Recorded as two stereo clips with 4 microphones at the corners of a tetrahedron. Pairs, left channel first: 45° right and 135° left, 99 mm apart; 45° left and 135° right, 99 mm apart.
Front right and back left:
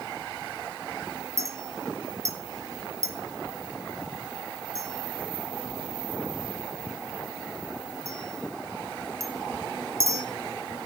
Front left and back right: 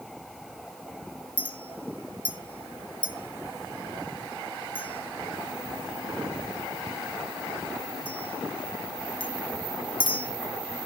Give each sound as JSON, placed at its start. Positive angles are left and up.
{"t": 1.4, "sound": "a clink", "azimuth_deg": 75, "distance_m": 1.2}